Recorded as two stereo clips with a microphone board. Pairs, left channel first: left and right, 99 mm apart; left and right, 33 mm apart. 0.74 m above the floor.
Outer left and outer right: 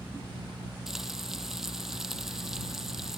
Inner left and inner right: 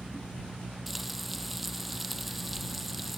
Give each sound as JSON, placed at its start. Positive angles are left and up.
{"t": 0.9, "sound": "frying", "side_deg": -5}